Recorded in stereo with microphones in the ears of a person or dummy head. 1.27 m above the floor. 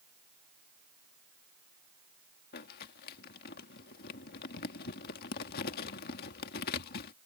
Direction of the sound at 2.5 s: 50° left (ahead or behind).